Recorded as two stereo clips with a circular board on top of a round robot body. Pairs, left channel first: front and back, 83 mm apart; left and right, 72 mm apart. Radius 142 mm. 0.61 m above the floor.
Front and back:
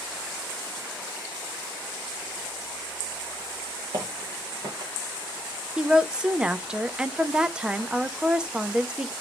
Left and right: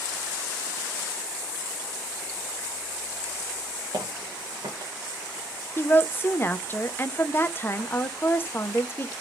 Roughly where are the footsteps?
Behind right.